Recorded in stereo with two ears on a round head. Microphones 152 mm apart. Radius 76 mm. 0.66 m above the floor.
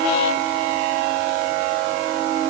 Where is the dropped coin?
I don't hear a dropped coin.